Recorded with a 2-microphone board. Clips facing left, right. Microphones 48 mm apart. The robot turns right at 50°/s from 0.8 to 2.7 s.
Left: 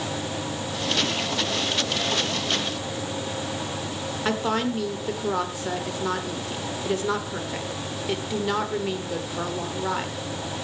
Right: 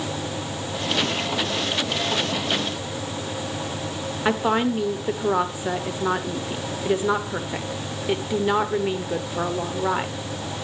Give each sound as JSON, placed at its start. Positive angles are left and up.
{"t": 4.2, "sound": "a woman speaking", "side_deg": -15, "distance_m": 0.8}